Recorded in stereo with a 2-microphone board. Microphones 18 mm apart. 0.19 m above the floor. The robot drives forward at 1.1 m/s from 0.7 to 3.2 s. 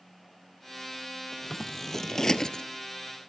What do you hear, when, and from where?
1.3 s scissors: 15° left (ahead or behind), 2 m; by 2.6 s 40° left (ahead or behind), 0.9 m